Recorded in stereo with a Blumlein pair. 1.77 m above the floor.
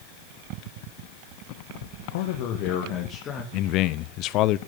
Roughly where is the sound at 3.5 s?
Ahead left.